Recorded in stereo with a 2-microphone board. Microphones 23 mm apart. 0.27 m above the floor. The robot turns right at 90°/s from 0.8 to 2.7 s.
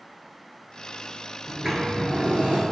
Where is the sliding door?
Straight behind, 0.7 m; by 2.6 s 80° right, 0.7 m.